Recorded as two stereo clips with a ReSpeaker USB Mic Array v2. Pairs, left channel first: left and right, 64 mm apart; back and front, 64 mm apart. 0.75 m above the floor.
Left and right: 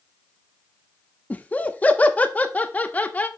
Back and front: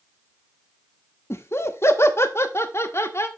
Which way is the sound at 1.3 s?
145° left.